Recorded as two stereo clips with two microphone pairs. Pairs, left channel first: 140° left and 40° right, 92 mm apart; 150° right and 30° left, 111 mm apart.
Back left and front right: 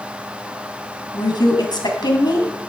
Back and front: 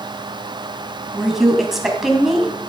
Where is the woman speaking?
115° left, 3 m.